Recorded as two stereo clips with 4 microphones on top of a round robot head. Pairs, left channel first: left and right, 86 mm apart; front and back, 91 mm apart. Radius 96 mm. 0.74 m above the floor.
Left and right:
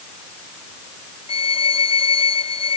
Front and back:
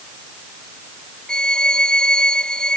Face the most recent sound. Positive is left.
turn(degrees=80)